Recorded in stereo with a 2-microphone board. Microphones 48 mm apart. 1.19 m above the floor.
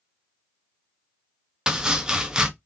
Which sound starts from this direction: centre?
Chopping, at 1.7 s.